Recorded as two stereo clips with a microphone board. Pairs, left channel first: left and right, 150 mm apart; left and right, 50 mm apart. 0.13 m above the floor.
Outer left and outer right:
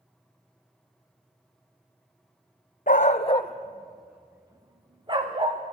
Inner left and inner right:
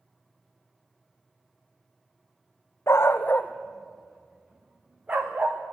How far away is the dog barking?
About 1.6 m.